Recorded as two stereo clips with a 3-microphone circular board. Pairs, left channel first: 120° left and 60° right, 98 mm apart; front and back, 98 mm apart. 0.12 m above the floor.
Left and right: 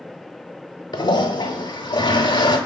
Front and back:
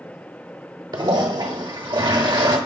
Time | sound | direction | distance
0.9 | a toilet flushing | 150° left | 0.7 m